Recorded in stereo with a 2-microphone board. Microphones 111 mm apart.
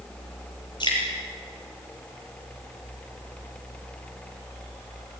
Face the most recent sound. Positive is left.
turn(degrees=45)  # may be behind; listen again after turning